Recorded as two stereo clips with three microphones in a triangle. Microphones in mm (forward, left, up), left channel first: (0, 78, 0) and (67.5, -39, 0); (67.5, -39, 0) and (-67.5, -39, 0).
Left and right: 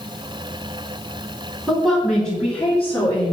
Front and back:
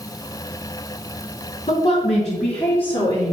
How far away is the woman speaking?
About 5 m.